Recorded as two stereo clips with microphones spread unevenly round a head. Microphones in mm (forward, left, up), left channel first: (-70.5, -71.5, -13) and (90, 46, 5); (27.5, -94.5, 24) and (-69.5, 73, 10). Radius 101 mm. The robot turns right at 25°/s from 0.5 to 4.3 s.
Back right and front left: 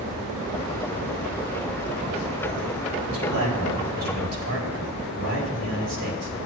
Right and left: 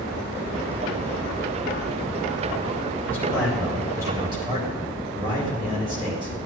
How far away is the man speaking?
About 4 m.